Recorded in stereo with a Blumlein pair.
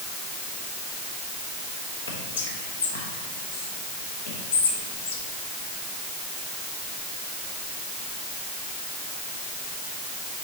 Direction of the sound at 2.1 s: 60° left.